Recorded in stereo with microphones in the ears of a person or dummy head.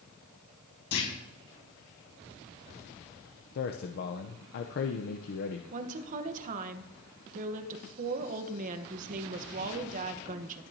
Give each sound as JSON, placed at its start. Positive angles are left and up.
{"t": 0.9, "sound": "a clunk", "side_deg": 70, "distance_m": 5.5}
{"t": 3.5, "sound": "a man speaking", "side_deg": 50, "distance_m": 0.7}
{"t": 5.7, "sound": "a woman speaking", "side_deg": -45, "distance_m": 1.1}